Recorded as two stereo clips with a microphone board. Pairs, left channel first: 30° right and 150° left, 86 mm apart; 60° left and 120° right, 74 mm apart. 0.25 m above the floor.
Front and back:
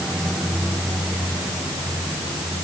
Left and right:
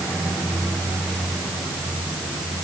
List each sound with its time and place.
Only background noise.